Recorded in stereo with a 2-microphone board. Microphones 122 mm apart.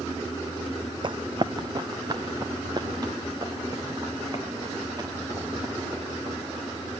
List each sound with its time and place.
1.0 s running footsteps: 40° right (ahead or behind), 0.5 m; by 6.9 s 30° right (ahead or behind), 7.5 m